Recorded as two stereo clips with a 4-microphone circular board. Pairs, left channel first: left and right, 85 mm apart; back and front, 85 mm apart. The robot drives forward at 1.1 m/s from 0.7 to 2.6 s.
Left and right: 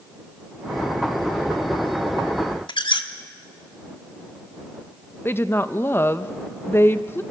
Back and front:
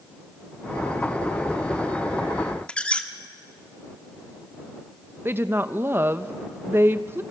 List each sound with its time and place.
2.7 s a squeak: 105° left, 1.2 m
5.2 s a woman speaking: 45° left, 0.7 m